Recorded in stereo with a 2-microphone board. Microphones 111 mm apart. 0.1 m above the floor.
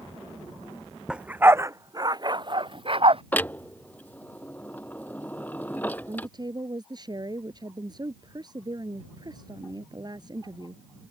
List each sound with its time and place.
1.1 s a dog barking: 10° right (ahead or behind); by 3.2 s 55° right (ahead or behind)
3.3 s a clunk: 15° left (ahead or behind)
6.1 s a woman speaking: 40° right (ahead or behind)